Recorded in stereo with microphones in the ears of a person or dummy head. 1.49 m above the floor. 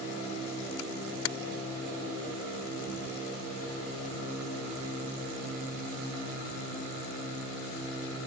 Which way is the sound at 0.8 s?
70° left (ahead or behind).